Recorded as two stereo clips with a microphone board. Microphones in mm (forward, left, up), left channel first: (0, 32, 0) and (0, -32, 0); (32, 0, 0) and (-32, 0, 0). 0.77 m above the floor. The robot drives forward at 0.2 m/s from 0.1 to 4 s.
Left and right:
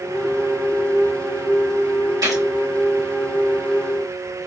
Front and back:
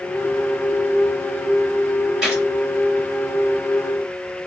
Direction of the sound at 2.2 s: 100° right.